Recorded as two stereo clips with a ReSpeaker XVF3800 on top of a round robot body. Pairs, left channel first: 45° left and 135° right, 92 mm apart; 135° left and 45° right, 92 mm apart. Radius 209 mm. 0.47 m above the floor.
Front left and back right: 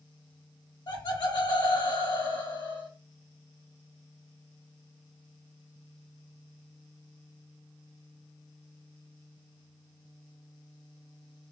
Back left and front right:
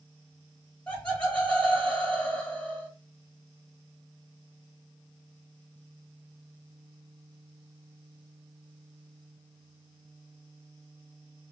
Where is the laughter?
60° left, 1.9 m.